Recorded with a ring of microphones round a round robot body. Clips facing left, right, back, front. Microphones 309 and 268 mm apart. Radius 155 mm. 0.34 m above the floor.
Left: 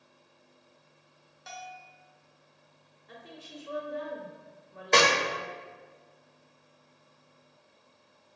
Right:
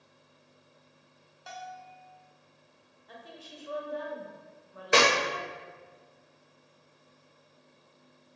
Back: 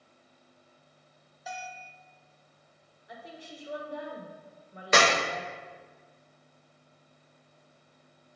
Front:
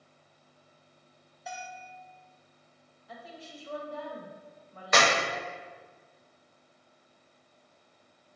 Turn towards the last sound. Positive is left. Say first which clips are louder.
# even, back 2 dB
turn(degrees=-160)